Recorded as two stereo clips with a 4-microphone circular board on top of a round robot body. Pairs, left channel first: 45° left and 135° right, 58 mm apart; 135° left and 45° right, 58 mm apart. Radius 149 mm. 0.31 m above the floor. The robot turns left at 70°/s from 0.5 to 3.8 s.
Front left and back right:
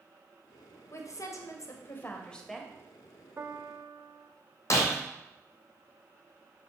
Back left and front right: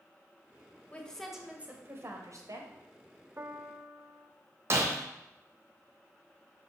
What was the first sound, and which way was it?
A woman speaking, 70° left.